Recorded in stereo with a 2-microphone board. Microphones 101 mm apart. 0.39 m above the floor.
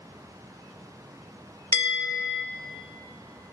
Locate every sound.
1.7 s a bell: 30° left (ahead or behind), 0.5 m